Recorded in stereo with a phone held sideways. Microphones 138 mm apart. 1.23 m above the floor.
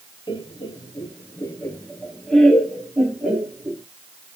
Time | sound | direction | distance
0.3 | laughter | 35° left (ahead or behind) | 0.9 m